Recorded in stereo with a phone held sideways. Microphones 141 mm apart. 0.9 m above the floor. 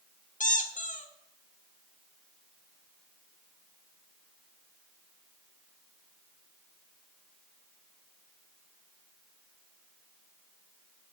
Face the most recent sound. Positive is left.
turn(degrees=65)  # may be behind; listen again after turning